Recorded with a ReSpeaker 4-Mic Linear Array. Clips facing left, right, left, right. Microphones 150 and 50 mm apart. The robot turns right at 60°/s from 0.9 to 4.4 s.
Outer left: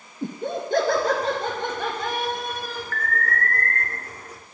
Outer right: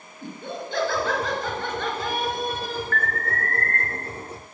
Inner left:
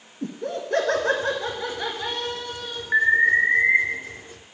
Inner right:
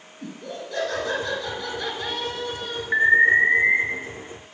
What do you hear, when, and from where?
0.2 s laughter: 115° left, 1.8 m; by 2.8 s 130° right, 1.8 m
2.9 s an alarm: centre (ahead or behind), 1.3 m; by 3.8 s 20° left (ahead or behind), 1.3 m